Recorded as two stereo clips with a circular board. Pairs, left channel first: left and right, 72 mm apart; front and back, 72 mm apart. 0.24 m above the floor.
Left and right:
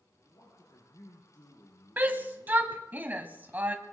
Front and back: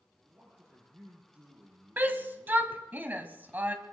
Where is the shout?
135° right, 1.4 m.